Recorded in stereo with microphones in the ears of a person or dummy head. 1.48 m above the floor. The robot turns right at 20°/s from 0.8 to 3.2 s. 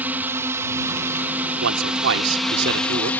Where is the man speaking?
80° right; by 3.1 s 50° right.